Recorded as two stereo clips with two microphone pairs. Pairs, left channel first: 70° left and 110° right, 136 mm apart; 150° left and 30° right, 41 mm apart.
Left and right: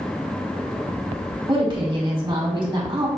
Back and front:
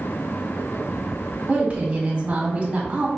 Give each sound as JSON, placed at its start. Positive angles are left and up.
{"t": 1.5, "sound": "a woman speaking", "azimuth_deg": -75, "distance_m": 1.5}